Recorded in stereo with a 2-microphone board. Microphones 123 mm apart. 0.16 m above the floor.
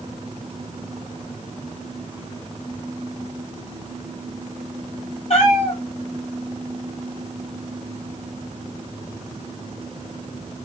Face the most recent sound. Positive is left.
turn(degrees=55)  # may be behind; listen again after turning